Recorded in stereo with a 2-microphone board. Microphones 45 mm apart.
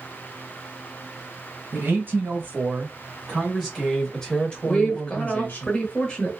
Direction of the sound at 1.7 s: 45° right (ahead or behind).